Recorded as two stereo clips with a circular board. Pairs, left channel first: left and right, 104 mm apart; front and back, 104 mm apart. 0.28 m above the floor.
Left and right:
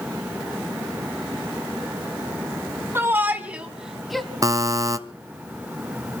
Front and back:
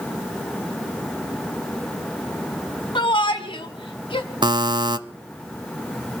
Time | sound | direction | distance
3.0 | a shout | 25° right | 2 m
4.4 | a buzzer | 145° right | 0.7 m